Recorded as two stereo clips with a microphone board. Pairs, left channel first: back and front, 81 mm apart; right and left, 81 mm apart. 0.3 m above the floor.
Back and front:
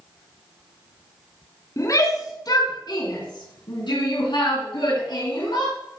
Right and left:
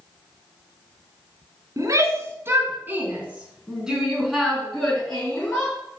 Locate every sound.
1.8 s a shout: 135° left, 2.5 m; by 5.8 s 165° right, 3.5 m